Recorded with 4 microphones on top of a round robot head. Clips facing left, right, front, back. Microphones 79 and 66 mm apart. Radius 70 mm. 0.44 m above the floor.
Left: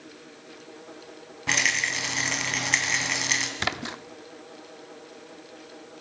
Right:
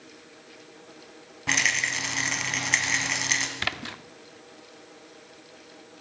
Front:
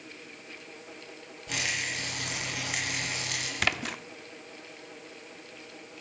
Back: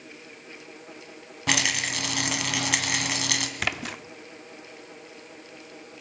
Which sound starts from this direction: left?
A splash, at 3.6 s.